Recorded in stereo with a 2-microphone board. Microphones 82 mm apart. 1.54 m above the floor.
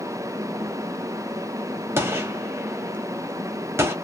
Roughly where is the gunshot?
Right.